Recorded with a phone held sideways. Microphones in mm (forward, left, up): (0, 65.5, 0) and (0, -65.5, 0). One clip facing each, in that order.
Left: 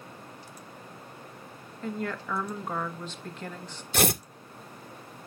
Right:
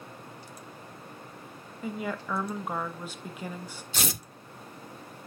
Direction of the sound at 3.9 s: 60° left (ahead or behind).